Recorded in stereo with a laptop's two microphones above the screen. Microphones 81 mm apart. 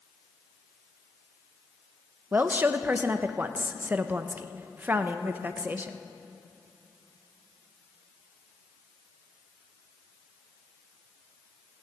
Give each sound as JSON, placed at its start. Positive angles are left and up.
{"t": 2.3, "sound": "a woman speaking", "side_deg": -20, "distance_m": 0.5}